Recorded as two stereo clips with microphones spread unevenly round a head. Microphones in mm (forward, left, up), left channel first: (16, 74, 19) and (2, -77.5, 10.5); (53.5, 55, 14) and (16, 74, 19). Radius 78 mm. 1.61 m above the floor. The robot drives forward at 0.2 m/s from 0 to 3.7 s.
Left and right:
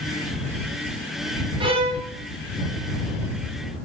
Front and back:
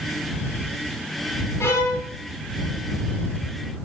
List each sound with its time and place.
1.6 s a violin: 35° right, 1.0 m; by 2.0 s 40° right, 0.9 m